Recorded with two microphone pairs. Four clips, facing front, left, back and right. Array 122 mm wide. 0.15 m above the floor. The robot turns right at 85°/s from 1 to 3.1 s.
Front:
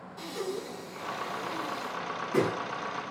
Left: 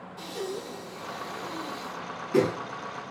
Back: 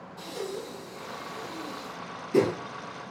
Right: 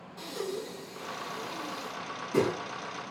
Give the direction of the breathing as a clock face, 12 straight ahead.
1 o'clock.